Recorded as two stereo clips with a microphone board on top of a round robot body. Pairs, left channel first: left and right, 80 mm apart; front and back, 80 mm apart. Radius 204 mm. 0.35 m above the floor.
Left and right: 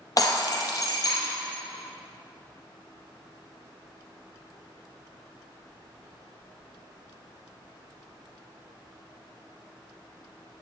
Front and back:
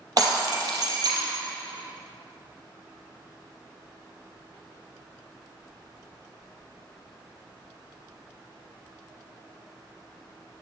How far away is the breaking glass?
About 2.5 m.